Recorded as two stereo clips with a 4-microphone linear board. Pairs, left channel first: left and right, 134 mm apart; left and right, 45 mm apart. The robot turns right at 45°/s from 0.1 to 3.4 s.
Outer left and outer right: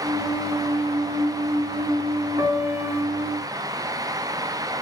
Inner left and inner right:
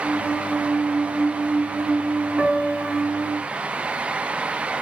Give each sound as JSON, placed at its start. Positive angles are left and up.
{"t": 2.4, "sound": "a piano", "side_deg": -40, "distance_m": 0.6}